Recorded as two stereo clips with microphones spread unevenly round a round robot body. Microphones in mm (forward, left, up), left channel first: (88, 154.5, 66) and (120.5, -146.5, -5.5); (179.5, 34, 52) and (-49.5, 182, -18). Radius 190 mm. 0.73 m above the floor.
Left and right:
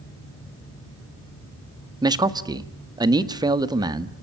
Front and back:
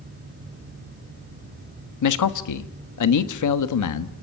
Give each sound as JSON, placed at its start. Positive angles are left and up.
{"t": 2.0, "sound": "a man speaking", "azimuth_deg": -20, "distance_m": 1.6}